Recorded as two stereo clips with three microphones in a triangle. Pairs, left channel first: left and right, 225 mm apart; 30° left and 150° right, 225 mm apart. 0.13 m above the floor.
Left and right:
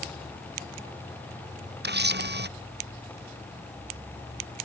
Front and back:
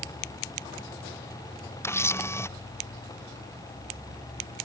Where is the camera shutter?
50° right.